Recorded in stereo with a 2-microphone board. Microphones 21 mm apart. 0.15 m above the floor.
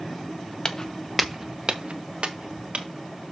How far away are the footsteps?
About 1.1 m.